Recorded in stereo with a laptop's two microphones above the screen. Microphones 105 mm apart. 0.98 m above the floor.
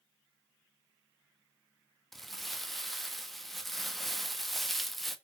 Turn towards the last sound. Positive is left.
turn(degrees=0)  # may be behind; listen again after turning